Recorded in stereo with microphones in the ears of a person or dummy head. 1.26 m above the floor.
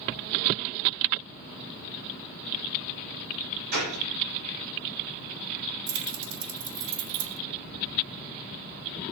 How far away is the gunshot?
About 5.5 m.